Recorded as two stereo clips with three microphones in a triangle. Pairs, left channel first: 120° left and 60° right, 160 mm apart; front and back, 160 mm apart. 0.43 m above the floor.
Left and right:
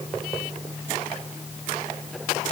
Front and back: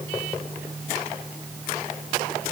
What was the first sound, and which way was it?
Only background noise.